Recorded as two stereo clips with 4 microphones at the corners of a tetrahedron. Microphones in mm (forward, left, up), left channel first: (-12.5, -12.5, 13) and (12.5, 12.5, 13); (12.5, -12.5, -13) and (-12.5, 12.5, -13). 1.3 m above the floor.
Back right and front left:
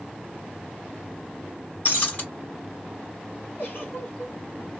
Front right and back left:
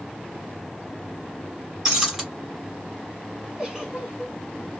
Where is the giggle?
160° right, 1.2 m.